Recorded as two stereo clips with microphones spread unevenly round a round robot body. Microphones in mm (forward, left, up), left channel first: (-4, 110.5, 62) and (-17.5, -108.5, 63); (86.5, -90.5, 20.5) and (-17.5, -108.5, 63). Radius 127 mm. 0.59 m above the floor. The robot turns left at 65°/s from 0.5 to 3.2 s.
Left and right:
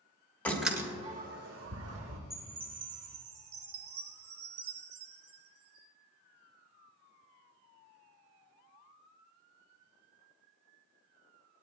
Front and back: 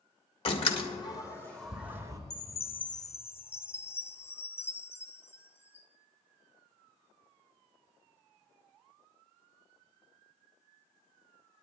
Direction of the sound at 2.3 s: 5° right.